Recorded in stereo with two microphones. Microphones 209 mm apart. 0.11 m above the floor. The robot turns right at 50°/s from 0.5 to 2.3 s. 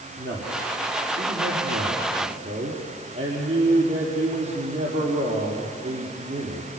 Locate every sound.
0.2 s a man speaking: 125° right, 5 m; by 6.7 s 35° right, 5 m